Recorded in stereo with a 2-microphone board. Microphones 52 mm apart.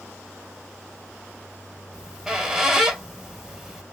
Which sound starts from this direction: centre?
A squeak, at 1.9 s.